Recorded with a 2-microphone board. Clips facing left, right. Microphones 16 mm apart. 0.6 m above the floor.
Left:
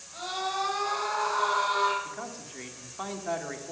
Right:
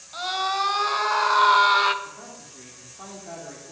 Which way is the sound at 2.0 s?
45° left (ahead or behind).